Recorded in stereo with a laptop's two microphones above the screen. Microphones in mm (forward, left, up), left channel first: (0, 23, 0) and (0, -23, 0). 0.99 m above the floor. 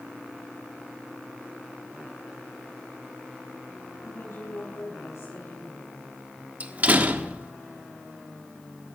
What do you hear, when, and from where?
4.0 s a woman speaking: 80° left, 7 m; by 6.1 s 85° left, 9 m
6.6 s a door slam: 35° right (ahead or behind), 1.3 m